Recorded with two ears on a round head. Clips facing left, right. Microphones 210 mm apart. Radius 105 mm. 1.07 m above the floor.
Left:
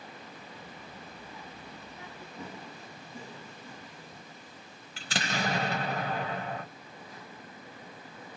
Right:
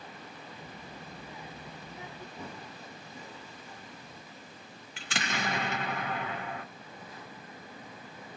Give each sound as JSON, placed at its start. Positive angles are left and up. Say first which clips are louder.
{"t": 0.6, "sound": "a child speaking", "louder": "right 1 dB", "side_deg": -15, "distance_m": 0.5}
{"t": 2.4, "sound": "running footsteps", "louder": "left 4 dB", "side_deg": 0, "distance_m": 1.4}
{"t": 5.0, "sound": "an explosion", "louder": "left 2 dB", "side_deg": 35, "distance_m": 1.0}